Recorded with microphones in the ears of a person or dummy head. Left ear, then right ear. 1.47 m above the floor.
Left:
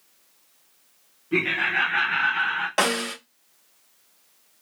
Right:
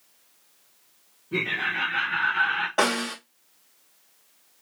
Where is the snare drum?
75° left (ahead or behind), 3 m.